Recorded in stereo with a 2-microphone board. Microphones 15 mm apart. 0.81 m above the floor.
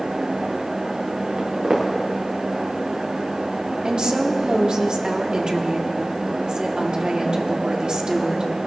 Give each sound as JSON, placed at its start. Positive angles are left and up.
{"t": 1.4, "sound": "footsteps", "side_deg": -80, "distance_m": 3.5}
{"t": 3.8, "sound": "a woman speaking", "side_deg": -65, "distance_m": 1.4}